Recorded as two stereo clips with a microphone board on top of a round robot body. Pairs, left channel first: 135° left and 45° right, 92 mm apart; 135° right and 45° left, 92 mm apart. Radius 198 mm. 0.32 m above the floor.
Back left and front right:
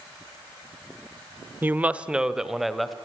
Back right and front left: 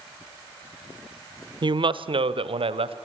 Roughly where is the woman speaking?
Ahead.